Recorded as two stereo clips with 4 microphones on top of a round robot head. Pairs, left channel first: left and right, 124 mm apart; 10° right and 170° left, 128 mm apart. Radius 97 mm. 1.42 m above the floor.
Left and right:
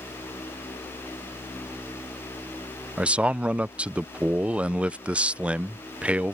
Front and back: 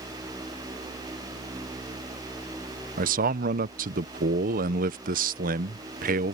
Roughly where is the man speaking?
Behind.